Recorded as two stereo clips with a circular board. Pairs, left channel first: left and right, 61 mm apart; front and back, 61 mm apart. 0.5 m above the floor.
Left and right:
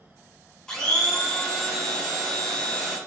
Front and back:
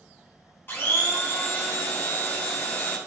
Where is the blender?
20° left, 0.9 m.